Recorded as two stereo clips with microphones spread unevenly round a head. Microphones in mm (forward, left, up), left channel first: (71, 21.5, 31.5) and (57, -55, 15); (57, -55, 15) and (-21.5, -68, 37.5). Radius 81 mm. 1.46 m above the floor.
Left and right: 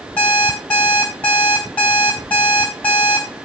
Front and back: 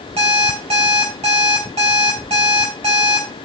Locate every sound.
0.2 s an alarm clock: 155° left, 4.5 m